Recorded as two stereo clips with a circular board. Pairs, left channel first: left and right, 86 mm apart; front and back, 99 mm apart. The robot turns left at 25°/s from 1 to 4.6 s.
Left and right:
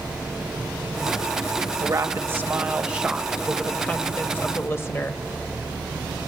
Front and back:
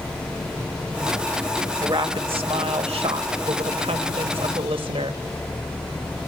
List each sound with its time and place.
1.8 s a woman speaking: 140° right, 1.1 m; by 5.2 s 150° left, 1.1 m